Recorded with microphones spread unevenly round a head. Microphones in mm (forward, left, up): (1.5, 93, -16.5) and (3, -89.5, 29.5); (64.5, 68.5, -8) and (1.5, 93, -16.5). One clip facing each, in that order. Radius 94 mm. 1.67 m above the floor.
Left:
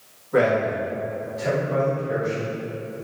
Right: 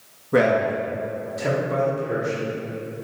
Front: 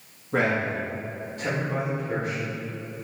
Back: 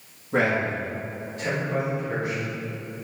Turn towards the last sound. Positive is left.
turn(degrees=-80)